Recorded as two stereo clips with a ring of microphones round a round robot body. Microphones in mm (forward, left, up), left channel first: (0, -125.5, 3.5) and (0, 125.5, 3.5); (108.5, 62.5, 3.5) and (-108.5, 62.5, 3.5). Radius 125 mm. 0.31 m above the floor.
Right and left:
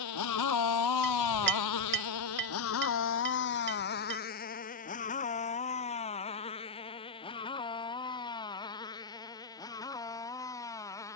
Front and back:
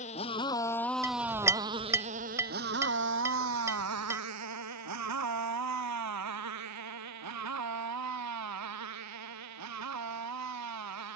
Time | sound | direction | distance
0.0 | a motorcycle | 65° right | ?
1.0 | a clink | 110° left | ?